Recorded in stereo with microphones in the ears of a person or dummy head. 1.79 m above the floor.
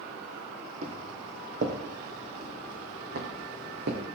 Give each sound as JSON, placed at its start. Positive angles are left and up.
{"t": 0.8, "sound": "footsteps", "side_deg": -45, "distance_m": 3.5}